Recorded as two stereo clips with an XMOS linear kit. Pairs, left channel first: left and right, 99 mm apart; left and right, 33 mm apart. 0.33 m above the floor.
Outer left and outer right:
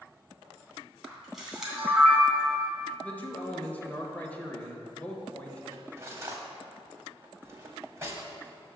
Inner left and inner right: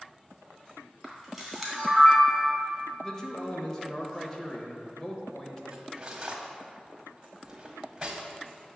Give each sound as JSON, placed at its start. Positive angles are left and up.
{"t": 1.0, "sound": "a camera shutter", "side_deg": -5, "distance_m": 2.5}
{"t": 3.0, "sound": "a man speaking", "side_deg": 15, "distance_m": 1.3}
{"t": 5.7, "sound": "cutlery clinking", "side_deg": -25, "distance_m": 1.2}